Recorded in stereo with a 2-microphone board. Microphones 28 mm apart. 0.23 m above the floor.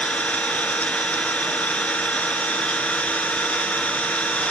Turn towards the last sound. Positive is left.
turn(degrees=65)  # may be behind; listen again after turning